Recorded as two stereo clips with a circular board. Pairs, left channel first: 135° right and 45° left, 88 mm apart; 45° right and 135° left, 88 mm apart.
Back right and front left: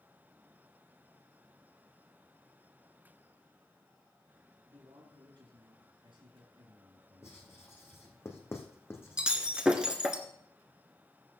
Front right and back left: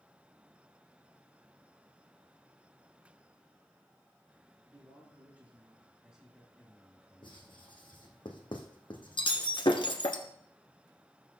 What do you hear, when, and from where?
4.7 s a man speaking: 70° left, 2.5 m; by 7.7 s 30° left, 2 m
7.2 s writing: 75° right, 1.9 m
9.2 s breaking glass: 35° right, 1.3 m